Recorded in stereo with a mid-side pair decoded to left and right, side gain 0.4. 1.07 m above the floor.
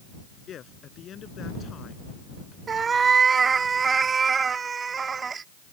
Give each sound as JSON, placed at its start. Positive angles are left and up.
{"t": 0.5, "sound": "a man speaking", "azimuth_deg": 65}
{"t": 2.7, "sound": "a cat meowing", "azimuth_deg": -50}